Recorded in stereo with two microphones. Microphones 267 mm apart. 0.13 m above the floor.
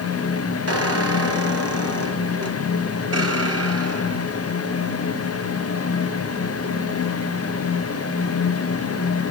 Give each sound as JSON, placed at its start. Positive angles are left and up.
{"t": 0.7, "sound": "a squeak", "side_deg": -55, "distance_m": 1.3}